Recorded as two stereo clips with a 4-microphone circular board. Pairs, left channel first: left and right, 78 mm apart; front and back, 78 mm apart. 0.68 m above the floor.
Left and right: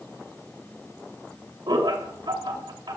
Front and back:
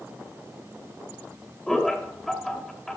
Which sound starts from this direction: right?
Laughter, at 1.7 s.